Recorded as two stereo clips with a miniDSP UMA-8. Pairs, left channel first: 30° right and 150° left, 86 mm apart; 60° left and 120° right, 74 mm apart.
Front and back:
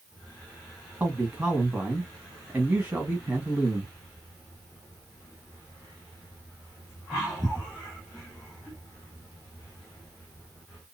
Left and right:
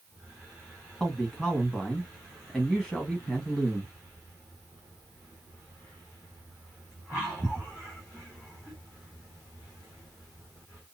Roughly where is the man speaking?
Behind left.